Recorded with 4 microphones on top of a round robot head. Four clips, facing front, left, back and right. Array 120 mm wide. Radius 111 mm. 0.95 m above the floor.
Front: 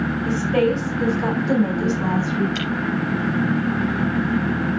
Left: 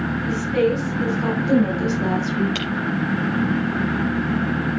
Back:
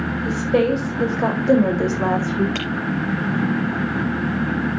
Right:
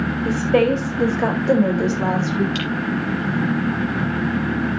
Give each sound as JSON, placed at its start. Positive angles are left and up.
{"t": 0.2, "sound": "a woman speaking", "azimuth_deg": -115, "distance_m": 4.5}
{"t": 2.5, "sound": "breaking glass", "azimuth_deg": 155, "distance_m": 6.0}